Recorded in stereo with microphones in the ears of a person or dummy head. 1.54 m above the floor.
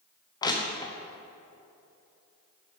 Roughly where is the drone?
I don't hear a drone.